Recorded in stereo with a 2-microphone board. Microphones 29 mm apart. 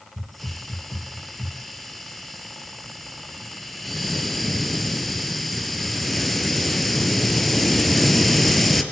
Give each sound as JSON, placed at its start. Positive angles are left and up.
{"t": 0.2, "sound": "a hiss", "side_deg": 5, "distance_m": 3.5}